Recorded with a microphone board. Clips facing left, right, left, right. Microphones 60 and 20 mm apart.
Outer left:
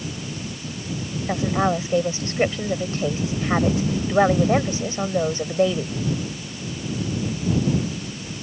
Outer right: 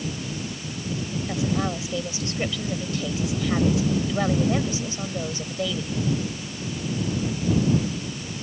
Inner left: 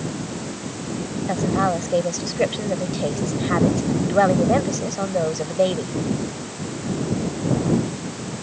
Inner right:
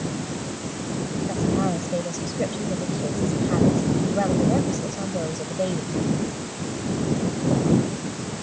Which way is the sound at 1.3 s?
40° left (ahead or behind).